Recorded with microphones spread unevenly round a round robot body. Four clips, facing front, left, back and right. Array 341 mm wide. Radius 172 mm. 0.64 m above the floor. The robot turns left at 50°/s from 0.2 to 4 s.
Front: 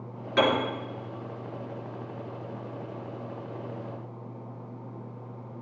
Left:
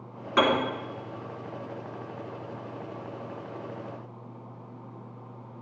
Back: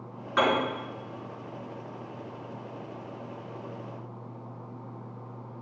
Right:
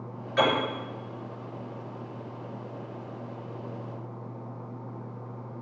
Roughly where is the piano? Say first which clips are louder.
Left 1 dB, front 1 dB; left.